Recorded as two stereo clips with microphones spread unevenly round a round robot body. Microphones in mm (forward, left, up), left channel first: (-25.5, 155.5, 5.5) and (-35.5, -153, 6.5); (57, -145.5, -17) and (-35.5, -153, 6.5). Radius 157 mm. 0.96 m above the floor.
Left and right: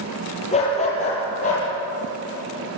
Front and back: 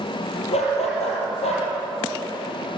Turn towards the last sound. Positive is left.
turn(degrees=20)